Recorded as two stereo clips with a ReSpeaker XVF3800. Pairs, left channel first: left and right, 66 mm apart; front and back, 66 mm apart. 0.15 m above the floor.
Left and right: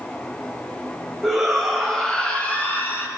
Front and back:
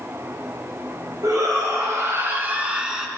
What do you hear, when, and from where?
1.2 s a shout: 175° right, 2.5 m; by 3.1 s 95° left, 1.4 m